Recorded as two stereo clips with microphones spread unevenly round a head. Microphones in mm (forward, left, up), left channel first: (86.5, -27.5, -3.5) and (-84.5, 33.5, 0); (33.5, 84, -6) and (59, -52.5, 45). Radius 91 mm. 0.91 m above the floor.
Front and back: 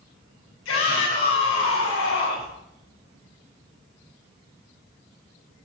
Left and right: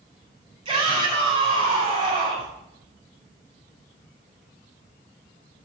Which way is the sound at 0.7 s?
30° right.